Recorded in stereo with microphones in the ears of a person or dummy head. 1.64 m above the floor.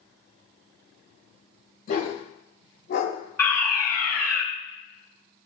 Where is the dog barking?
45° left (ahead or behind), 4 m; by 3.2 s 65° left (ahead or behind), 3 m.